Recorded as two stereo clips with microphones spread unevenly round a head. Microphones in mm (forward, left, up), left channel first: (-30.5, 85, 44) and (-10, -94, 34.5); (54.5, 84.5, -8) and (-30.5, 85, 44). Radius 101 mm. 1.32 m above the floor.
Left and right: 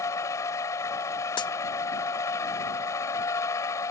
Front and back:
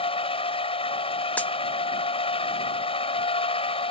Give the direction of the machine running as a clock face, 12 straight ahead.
11 o'clock.